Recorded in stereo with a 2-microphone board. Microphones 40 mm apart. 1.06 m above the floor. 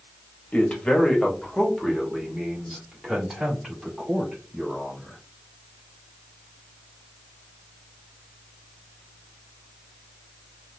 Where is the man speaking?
30° left (ahead or behind), 1.0 m; by 5.2 s 20° right (ahead or behind), 3 m.